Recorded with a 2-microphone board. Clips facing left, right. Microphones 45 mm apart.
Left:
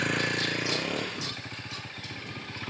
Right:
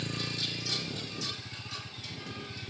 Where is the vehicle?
60° left (ahead or behind); by 2.7 s 75° left (ahead or behind).